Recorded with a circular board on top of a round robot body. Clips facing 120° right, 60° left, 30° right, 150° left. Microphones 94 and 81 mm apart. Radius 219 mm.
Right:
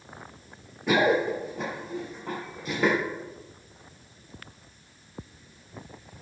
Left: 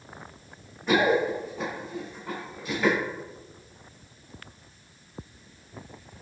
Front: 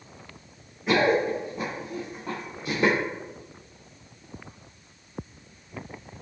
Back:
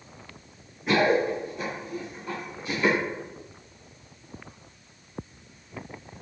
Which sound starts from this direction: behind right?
Running footsteps, at 0.9 s.